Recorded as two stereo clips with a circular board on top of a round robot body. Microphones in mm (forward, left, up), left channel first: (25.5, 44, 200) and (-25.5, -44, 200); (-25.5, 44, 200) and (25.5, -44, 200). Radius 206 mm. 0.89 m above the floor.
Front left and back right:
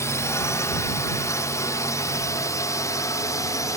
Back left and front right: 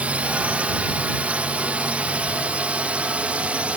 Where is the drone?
10° left; by 3.8 s 15° left.